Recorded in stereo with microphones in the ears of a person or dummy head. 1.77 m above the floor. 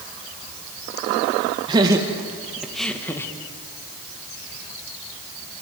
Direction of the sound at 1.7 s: 25° right (ahead or behind).